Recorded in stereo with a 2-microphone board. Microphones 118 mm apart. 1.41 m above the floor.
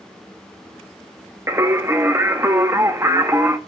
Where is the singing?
20° right (ahead or behind), 0.9 m.